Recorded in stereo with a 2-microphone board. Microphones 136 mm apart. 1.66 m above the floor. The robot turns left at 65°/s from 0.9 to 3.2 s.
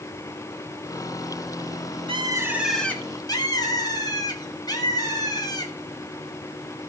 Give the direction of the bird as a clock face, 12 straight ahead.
5 o'clock.